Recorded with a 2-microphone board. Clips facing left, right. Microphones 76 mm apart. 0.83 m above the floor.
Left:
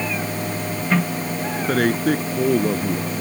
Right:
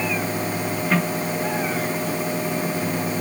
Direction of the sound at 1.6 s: 65° left (ahead or behind).